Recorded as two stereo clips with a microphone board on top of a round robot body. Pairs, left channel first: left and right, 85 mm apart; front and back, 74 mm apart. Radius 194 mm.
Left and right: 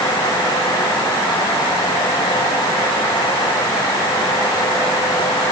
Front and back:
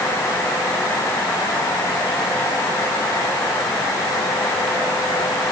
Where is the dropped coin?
I don't hear a dropped coin.